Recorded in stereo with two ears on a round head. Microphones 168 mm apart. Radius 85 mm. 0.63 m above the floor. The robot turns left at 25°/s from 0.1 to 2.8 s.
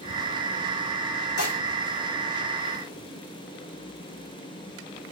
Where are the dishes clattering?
60° left (ahead or behind), 1.2 m; by 1.6 s 65° left (ahead or behind), 1.2 m.